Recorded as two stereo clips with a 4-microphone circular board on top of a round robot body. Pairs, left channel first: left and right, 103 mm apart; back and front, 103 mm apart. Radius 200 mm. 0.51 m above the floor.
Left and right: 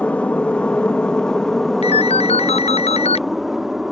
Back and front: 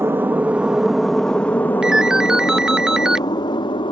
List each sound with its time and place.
0.0 s an aircraft: 25° left; by 3.9 s 175° right
1.8 s a ringtone: 85° left